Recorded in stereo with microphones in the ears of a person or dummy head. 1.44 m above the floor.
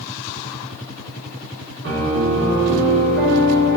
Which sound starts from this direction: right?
A piano, at 1.8 s.